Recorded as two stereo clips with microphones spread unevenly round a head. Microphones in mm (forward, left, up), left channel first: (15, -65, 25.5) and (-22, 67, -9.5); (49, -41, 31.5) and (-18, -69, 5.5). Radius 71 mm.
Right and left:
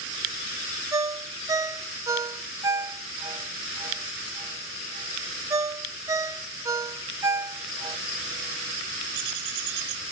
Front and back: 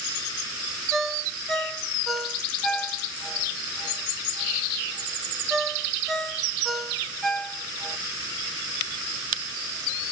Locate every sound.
0.9 s a ringtone: 30° left, 0.7 m